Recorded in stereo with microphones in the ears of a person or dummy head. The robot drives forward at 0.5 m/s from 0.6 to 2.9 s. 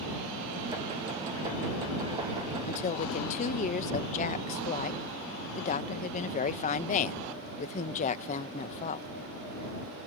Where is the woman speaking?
40° left (ahead or behind).